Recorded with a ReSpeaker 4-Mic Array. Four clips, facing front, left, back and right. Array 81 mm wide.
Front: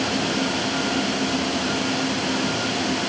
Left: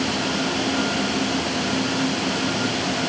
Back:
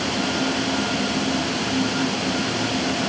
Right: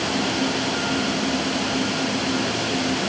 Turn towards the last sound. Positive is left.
No sound to turn to.